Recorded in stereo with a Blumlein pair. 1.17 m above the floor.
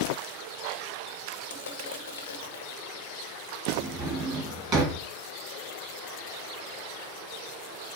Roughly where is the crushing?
Ahead left.